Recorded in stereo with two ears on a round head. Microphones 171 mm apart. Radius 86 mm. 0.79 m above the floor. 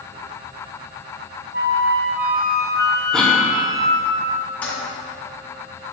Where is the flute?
55° right (ahead or behind), 0.6 m.